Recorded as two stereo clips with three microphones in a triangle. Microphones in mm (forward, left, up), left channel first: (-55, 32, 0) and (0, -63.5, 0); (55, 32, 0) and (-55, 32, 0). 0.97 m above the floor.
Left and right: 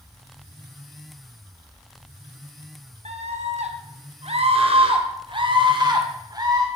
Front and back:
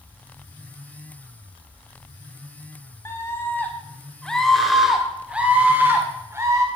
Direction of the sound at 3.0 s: 65° right.